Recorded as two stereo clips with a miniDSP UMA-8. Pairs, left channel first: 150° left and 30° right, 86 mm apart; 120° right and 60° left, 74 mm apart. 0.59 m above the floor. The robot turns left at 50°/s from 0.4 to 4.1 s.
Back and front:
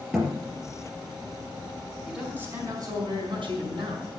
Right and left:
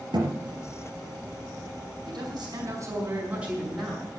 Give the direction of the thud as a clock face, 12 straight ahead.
10 o'clock.